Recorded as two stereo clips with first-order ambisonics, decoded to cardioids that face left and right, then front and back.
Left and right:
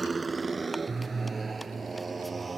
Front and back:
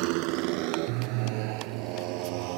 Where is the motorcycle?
165° right.